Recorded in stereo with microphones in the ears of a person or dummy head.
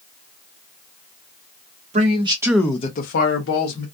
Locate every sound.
1.9 s a man speaking: 40° right (ahead or behind), 0.9 m; by 3.9 s 80° left, 1.2 m